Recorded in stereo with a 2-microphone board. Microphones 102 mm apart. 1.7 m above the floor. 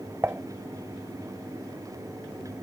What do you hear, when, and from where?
0.2 s dishes clattering: 25° right (ahead or behind)